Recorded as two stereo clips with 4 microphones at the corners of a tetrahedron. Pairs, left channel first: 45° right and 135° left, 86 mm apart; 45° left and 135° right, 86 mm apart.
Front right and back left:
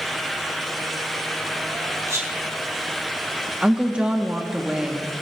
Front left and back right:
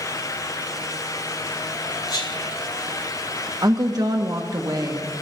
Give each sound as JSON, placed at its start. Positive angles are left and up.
{"t": 2.1, "sound": "whispering", "azimuth_deg": 85, "distance_m": 3.5}
{"t": 3.6, "sound": "a woman speaking", "azimuth_deg": -155, "distance_m": 0.9}